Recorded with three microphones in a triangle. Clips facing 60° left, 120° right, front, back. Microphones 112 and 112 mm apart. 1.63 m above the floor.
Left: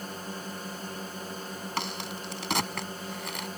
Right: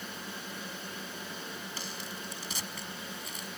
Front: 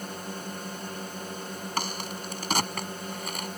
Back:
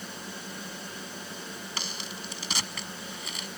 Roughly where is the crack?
Ahead left.